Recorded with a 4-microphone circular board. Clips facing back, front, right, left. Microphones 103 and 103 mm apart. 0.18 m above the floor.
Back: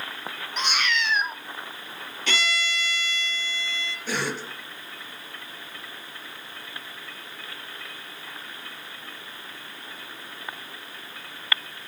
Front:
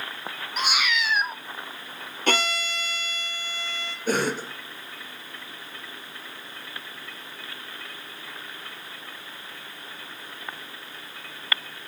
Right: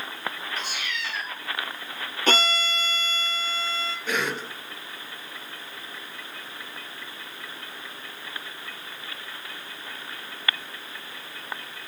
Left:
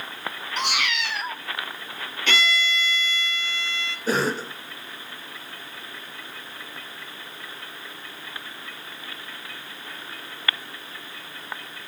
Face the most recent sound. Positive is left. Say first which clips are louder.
# front 5 dB, left 6 dB
turn(degrees=40)